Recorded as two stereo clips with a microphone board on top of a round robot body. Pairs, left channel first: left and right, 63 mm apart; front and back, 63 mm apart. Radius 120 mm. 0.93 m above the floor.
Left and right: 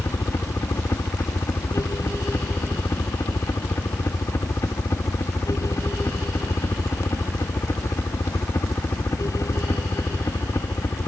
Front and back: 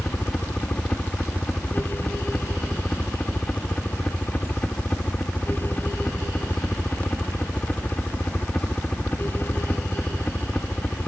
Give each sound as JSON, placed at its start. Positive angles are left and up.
{"t": 0.0, "sound": "a helicopter", "azimuth_deg": 65}